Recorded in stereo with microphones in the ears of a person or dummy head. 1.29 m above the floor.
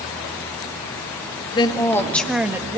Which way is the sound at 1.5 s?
25° left (ahead or behind).